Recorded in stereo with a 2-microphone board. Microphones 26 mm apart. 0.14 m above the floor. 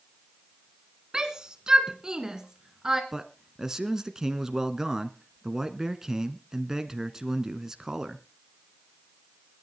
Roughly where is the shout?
Right.